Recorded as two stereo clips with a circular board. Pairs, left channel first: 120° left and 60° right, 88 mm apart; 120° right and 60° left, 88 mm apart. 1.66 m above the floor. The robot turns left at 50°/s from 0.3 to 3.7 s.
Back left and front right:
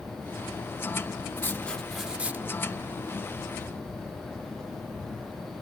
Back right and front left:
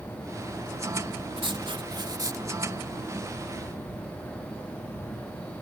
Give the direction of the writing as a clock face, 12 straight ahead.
10 o'clock.